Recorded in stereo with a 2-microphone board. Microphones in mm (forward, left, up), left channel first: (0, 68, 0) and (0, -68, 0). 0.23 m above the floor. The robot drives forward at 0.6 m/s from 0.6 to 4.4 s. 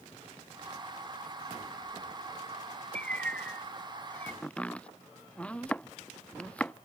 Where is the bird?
10° left (ahead or behind).